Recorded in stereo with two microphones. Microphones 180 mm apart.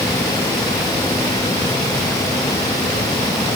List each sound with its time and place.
Only background noise.